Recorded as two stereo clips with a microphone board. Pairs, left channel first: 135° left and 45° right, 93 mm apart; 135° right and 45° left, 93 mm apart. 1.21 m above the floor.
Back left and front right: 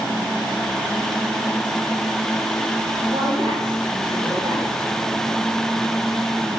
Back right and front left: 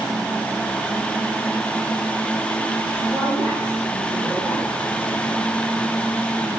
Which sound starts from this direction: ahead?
A woman speaking, at 3.1 s.